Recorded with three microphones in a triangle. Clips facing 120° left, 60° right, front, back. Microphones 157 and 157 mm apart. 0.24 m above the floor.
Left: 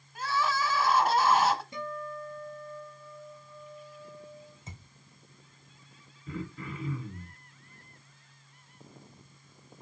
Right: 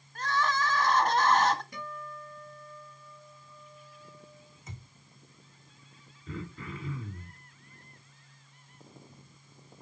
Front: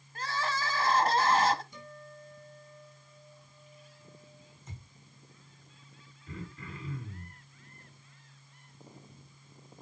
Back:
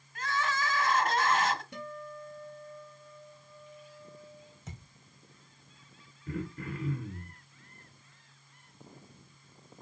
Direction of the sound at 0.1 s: 40° left.